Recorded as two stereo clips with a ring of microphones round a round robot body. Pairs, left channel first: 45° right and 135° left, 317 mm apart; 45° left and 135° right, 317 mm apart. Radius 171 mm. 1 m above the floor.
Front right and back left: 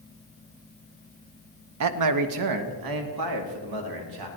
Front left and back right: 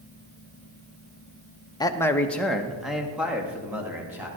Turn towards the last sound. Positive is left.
turn(degrees=140)